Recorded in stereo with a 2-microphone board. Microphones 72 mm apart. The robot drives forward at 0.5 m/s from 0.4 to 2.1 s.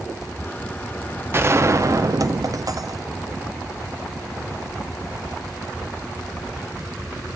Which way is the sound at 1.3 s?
35° right (ahead or behind).